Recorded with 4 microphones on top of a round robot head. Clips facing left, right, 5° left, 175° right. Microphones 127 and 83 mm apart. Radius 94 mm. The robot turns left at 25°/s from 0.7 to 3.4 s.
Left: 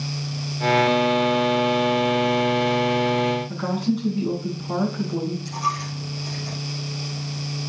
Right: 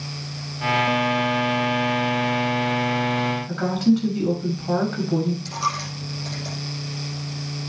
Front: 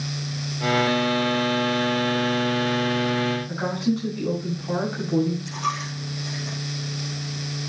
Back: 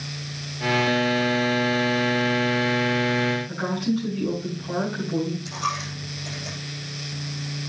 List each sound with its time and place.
3.5 s a woman speaking: 70° right, 6.5 m
5.5 s a dropped coin: 100° right, 7.5 m